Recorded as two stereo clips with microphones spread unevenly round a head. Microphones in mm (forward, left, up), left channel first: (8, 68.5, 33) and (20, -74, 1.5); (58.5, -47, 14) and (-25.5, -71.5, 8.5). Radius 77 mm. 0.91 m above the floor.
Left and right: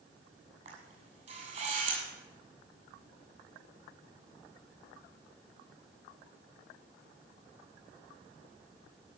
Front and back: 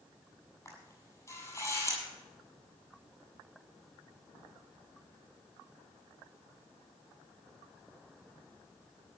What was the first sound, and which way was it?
A camera shutter, 40° right.